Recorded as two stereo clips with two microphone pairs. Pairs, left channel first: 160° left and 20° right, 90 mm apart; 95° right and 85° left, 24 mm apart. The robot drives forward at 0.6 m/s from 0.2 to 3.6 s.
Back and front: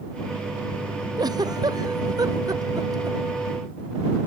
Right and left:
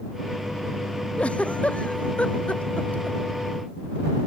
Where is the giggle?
60° right; by 3.2 s 70° right.